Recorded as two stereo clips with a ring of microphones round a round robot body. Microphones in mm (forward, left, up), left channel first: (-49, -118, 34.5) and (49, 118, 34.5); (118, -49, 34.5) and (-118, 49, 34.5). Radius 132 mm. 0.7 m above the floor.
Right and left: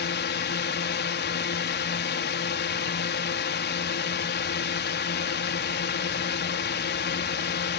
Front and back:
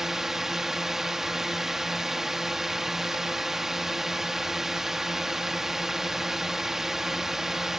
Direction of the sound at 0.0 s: 115° right.